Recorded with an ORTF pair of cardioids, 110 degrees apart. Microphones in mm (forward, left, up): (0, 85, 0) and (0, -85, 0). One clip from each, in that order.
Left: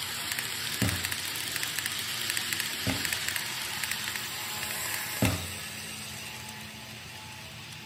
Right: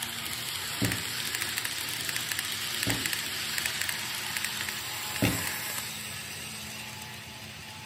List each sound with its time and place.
0.8 s a thud: 15° left, 2.5 m